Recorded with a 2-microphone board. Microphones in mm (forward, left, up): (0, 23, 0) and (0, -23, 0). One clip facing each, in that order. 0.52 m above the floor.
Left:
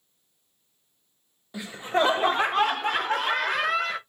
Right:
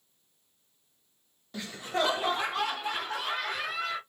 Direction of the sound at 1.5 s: 15° left (ahead or behind).